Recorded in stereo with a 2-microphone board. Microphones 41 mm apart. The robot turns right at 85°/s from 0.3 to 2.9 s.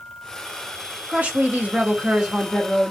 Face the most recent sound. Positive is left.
turn(degrees=25)